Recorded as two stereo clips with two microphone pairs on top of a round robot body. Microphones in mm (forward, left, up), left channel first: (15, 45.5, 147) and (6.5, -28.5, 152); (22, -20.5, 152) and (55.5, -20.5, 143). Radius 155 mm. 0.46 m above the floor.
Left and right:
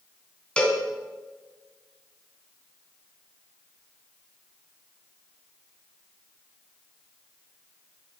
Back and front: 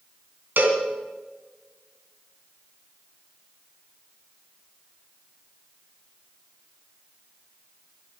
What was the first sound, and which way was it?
A cowbell, 5° left.